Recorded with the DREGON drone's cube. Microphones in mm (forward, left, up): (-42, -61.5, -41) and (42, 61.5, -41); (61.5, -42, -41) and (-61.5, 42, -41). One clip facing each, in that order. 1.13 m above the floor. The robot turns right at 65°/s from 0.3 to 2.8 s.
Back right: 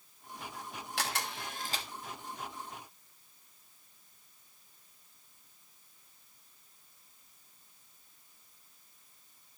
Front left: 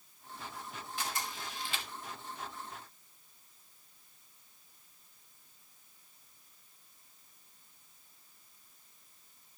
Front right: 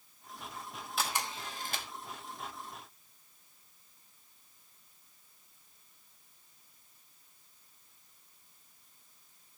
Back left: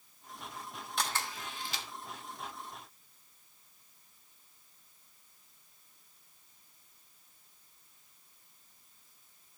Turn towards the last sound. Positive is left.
turn(degrees=-5)